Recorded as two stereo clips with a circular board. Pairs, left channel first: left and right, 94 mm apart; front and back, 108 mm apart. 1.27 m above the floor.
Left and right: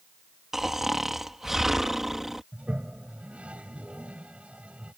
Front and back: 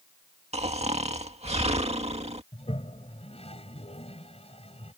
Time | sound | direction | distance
0.5 | snoring | 175° right | ?
2.5 | a toilet flushing | 15° right | ?